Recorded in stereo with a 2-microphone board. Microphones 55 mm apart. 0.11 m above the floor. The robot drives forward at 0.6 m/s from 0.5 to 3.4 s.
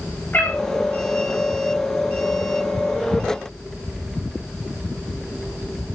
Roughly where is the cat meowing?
Left.